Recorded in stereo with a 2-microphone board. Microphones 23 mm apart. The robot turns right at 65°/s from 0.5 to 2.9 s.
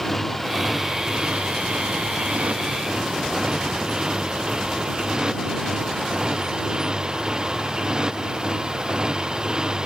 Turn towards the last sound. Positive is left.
turn(degrees=-35)